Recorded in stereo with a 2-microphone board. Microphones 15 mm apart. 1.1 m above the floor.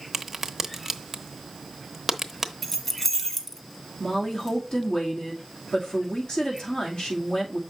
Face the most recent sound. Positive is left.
turn(degrees=60)  # may be behind; listen again after turning